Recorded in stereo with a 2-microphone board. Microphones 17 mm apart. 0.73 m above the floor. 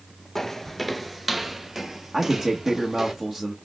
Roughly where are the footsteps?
Centre.